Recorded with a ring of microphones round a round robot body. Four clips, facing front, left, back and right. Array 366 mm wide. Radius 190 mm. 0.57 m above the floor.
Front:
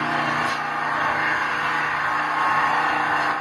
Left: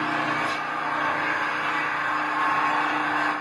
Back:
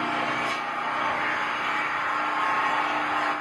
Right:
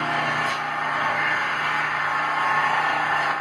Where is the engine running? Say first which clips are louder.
Right 1 dB, front 4 dB; 15° right, 0.8 m.